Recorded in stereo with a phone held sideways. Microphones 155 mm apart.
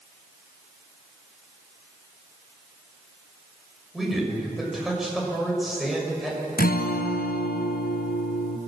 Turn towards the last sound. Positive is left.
turn(degrees=80)